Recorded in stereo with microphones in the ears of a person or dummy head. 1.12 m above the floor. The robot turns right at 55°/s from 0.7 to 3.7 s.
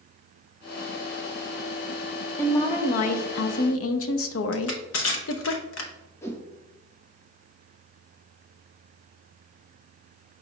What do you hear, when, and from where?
2.4 s a woman speaking: 10° left, 0.5 m; by 5.5 s 80° left, 0.5 m
4.5 s crushing: 85° left, 0.8 m
6.2 s a whoosh: 10° left (ahead or behind), 0.5 m